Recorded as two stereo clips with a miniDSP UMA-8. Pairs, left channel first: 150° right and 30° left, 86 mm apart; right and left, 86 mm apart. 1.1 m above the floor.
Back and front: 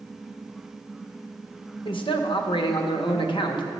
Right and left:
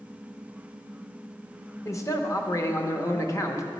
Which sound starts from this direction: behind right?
A man speaking, at 1.9 s.